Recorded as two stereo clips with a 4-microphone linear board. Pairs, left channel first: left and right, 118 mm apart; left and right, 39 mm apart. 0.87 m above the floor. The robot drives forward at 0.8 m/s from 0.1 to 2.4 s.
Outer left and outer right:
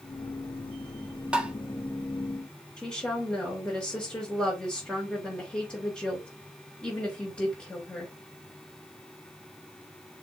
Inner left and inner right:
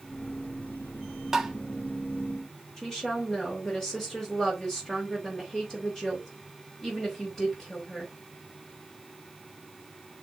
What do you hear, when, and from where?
1.3 s tapping: 10° right (ahead or behind), 1.3 m
2.8 s a woman speaking: 10° left (ahead or behind), 3.5 m